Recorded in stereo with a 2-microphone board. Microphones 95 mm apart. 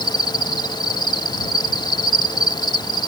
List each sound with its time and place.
0.0 s an insect: 45° left (ahead or behind)